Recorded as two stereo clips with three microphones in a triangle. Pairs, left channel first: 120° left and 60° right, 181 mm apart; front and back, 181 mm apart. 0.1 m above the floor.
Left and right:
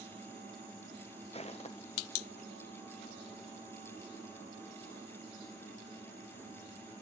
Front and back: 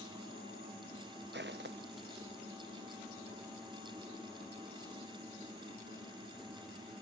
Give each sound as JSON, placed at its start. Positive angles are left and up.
{"t": 1.3, "sound": "footsteps", "azimuth_deg": 170, "distance_m": 0.7}